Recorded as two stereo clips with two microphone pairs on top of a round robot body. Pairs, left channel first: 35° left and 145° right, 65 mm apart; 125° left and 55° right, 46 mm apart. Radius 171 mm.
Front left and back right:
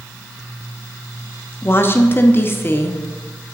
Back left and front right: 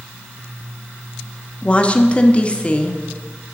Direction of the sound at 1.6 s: 70° left.